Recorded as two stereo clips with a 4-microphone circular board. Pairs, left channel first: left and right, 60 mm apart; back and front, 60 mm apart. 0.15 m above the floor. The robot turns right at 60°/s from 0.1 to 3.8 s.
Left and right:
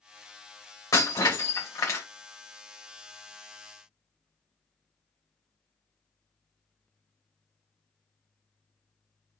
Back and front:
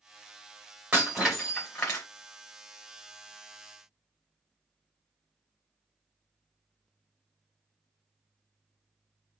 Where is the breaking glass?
70° left, 3 m; by 2.0 s 140° left, 3 m.